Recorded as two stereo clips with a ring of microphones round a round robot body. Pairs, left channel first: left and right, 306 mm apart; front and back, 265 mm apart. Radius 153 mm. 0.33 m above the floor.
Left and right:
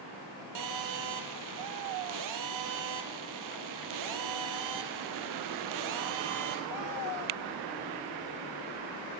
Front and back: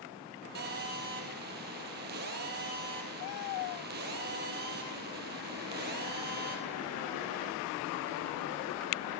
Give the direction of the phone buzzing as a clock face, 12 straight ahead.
4 o'clock.